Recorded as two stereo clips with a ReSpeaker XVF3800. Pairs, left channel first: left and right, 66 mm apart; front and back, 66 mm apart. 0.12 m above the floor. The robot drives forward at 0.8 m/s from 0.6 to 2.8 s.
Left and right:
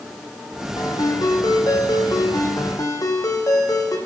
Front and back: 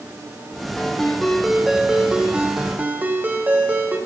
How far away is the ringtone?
About 2.5 m.